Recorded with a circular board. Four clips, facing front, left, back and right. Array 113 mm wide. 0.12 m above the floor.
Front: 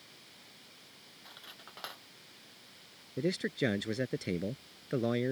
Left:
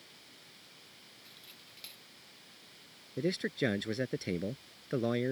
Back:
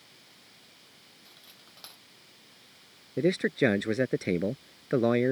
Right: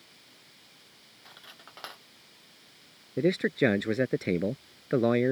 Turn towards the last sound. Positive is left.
turn(degrees=-135)